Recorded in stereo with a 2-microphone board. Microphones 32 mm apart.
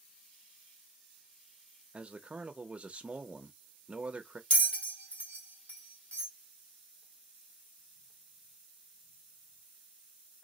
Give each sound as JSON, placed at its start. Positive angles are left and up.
{"t": 1.9, "sound": "a man speaking", "side_deg": -35, "distance_m": 0.6}
{"t": 4.5, "sound": "a bell", "side_deg": 50, "distance_m": 1.5}